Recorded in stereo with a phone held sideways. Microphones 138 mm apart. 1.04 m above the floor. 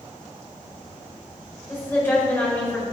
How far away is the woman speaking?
About 4.5 m.